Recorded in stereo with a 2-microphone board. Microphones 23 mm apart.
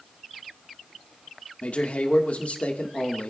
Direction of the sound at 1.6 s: 70° left (ahead or behind).